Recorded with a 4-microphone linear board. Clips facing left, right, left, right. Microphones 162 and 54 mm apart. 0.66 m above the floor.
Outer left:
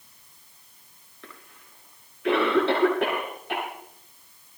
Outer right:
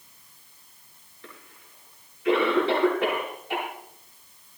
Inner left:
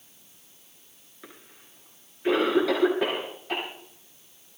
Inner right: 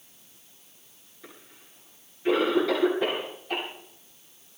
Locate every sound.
1.2 s a cough: 80° left, 9.5 m